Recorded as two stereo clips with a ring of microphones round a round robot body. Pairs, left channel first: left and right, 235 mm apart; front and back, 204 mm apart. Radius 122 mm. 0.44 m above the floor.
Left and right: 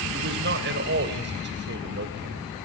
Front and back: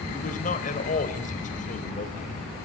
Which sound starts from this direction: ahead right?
A man speaking, at 0.1 s.